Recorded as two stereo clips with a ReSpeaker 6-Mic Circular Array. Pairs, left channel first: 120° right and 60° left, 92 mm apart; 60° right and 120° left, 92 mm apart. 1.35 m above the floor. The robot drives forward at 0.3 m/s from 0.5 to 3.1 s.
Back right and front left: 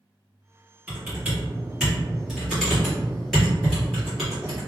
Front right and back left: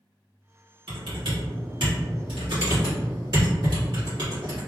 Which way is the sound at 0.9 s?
130° left.